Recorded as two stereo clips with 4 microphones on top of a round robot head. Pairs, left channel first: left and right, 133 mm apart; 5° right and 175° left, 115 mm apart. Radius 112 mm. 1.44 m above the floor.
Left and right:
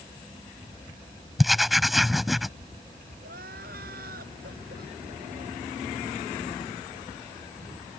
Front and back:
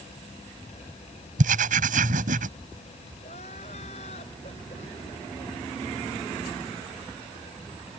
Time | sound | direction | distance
1.4 | writing | straight behind | ?
3.2 | crying | 55° right | ?